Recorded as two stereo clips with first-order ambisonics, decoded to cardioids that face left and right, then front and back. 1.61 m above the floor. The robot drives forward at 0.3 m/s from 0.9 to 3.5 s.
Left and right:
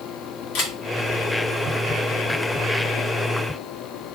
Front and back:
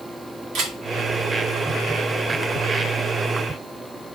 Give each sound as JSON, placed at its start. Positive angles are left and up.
{"t": 0.6, "sound": "a camera shutter", "azimuth_deg": 125, "distance_m": 2.0}